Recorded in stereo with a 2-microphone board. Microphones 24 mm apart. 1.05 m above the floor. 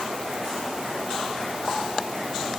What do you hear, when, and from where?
Only background noise.